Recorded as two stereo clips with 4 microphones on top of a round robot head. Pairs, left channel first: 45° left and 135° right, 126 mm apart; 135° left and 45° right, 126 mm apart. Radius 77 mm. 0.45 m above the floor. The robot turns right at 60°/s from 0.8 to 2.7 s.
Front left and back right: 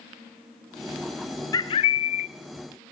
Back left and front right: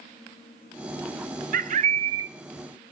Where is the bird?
20° right, 0.6 m; by 2.3 s 25° left, 0.6 m.